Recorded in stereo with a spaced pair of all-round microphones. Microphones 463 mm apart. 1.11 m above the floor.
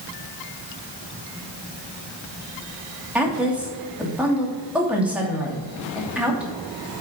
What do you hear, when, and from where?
3.1 s a woman speaking: 5° right (ahead or behind), 2.5 m